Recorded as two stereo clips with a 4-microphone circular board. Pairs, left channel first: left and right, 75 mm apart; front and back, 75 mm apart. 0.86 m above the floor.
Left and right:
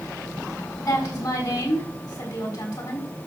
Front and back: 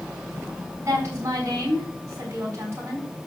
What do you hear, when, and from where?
0.8 s a woman speaking: 125° left, 6 m